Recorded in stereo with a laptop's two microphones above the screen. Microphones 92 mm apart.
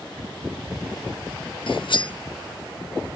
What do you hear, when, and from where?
1.7 s cutlery clinking: 65° left (ahead or behind), 0.6 m